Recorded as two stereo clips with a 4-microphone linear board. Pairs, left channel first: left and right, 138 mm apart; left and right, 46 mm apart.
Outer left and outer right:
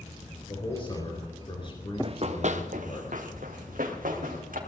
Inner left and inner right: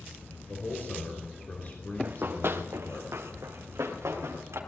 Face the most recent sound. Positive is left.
turn(degrees=-85)